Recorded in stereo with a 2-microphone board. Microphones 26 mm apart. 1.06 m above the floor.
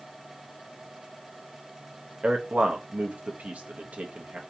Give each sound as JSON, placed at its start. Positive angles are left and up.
{"t": 2.2, "sound": "a man speaking", "side_deg": -60, "distance_m": 0.8}